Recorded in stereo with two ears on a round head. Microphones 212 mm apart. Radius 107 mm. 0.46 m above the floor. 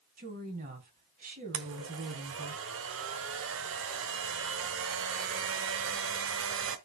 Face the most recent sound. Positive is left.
turn(degrees=-60)  # may be behind; listen again after turning